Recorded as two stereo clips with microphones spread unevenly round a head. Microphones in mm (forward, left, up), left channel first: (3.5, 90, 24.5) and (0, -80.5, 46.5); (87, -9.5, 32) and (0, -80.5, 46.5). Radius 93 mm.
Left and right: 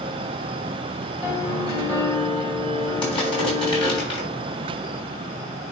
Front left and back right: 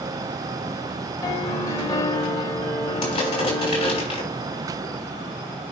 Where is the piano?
25° left, 2.5 m.